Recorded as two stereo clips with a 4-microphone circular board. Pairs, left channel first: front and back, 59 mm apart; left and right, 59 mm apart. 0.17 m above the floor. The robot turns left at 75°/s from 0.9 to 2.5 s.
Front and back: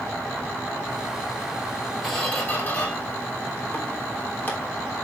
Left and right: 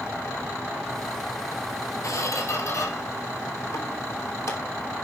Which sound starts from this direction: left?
A squeak, at 2.0 s.